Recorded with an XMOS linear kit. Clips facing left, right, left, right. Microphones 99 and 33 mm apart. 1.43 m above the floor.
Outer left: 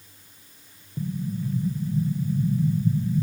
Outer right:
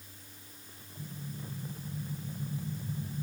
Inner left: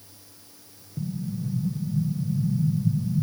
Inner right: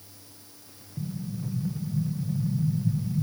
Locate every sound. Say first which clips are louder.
1.0 s an explosion: outer left 14 dB, inner left 3 dB; 90° left, 0.9 m